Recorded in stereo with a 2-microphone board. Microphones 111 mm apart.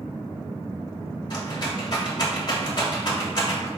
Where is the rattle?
40° left (ahead or behind), 1.3 m.